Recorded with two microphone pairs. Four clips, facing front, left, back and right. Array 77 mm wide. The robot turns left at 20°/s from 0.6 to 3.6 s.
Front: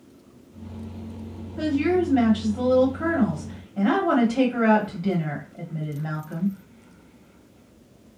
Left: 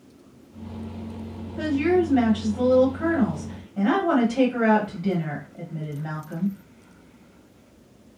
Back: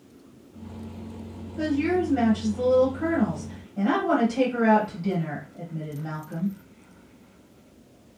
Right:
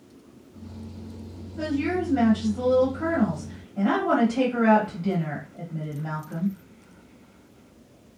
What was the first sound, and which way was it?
A woman speaking, 55° left.